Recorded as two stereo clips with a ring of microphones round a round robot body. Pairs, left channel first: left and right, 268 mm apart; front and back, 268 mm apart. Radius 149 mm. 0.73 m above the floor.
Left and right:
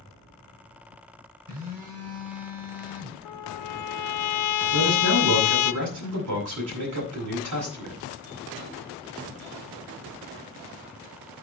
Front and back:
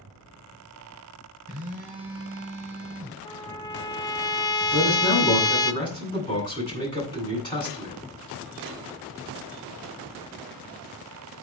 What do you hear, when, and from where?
1.5 s a phone buzzing: 110° right, 4.5 m
3.2 s a trumpet: 75° left, 0.8 m
4.7 s a man speaking: 75° right, 9 m